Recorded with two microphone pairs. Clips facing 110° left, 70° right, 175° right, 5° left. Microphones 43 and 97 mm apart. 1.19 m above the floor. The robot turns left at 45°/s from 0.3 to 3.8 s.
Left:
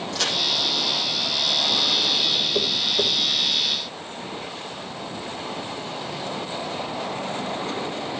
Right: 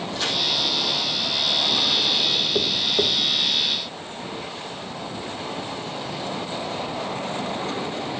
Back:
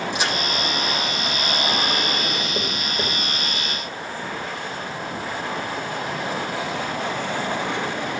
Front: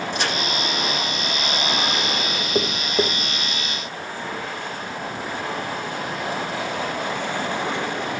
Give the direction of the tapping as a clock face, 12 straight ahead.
12 o'clock.